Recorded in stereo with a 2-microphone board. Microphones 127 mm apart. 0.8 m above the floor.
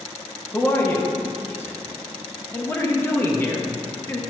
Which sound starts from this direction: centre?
A man speaking, at 0.5 s.